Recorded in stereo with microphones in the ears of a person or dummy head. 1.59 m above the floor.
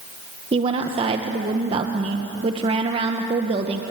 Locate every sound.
0.5 s a woman speaking: 35° right (ahead or behind), 1.4 m